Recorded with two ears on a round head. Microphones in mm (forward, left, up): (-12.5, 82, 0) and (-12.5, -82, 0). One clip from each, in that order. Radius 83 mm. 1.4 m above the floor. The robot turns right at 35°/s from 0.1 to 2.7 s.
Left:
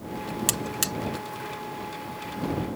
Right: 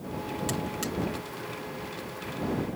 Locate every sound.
0.5 s a buzzer: 70° left (ahead or behind); by 0.9 s 55° left (ahead or behind)